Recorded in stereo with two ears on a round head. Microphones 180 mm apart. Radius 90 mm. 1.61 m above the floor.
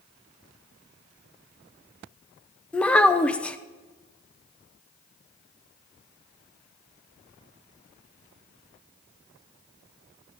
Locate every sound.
2.7 s a child speaking: 5° left (ahead or behind), 0.5 m